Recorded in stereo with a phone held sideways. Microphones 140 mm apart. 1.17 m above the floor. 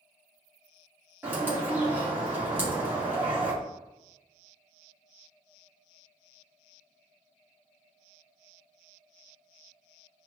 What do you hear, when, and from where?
1.2 s a bird: 15° right (ahead or behind), 2.5 m
2.5 s knocking: 40° right (ahead or behind), 1.3 m